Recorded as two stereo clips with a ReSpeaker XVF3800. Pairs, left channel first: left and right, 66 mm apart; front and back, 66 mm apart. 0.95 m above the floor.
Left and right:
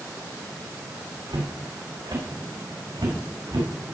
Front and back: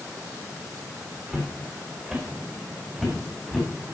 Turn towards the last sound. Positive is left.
turn(degrees=-90)